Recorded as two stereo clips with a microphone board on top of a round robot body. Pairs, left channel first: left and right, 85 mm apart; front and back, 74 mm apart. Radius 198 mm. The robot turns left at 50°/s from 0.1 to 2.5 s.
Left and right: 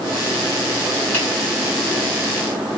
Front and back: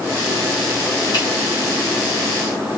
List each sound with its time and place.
1.1 s a finger snap: 30° left, 3 m; by 1.2 s 25° left, 3 m